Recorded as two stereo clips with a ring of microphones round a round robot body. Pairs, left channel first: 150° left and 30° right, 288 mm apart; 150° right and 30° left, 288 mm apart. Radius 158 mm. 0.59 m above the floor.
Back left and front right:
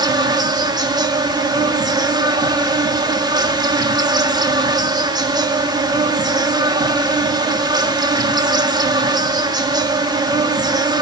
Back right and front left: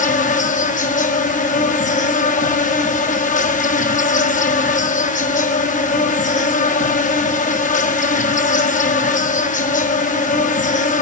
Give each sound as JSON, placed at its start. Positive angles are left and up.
{"t": 0.0, "sound": "an insect", "azimuth_deg": -100, "distance_m": 1.6}